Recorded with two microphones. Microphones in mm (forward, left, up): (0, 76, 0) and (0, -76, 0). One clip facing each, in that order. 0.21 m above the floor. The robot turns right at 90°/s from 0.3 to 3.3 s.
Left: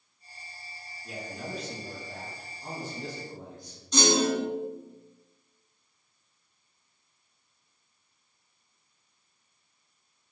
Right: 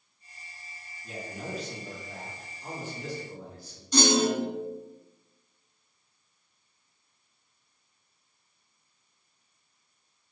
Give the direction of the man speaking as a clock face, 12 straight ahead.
2 o'clock.